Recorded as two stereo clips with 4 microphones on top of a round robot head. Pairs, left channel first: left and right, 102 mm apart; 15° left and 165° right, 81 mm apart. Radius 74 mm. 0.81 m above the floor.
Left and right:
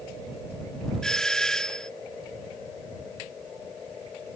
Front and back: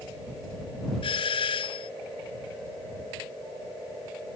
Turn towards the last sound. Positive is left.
turn(degrees=5)